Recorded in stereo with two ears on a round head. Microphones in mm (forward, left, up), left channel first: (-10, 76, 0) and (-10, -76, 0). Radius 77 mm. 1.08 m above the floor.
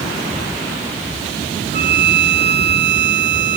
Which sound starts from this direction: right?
A violin, at 1.7 s.